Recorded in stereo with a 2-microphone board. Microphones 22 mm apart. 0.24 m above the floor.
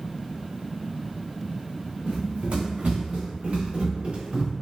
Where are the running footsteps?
55° right (ahead or behind), 0.7 m; by 4.5 s 50° right (ahead or behind), 1.4 m.